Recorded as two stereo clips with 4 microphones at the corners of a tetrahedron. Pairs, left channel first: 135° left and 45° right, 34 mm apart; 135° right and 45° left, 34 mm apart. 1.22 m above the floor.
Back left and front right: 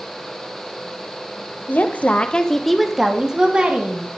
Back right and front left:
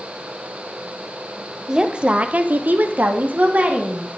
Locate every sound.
1.7 s a woman speaking: 115° left, 1.2 m; by 4.1 s 5° left, 2 m